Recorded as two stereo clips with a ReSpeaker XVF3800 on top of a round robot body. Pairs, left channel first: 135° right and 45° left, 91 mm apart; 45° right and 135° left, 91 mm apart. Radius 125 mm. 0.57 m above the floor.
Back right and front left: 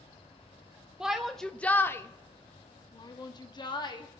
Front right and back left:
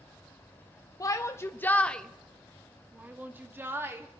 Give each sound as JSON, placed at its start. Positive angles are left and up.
{"t": 1.0, "sound": "a shout", "azimuth_deg": -35, "distance_m": 0.8}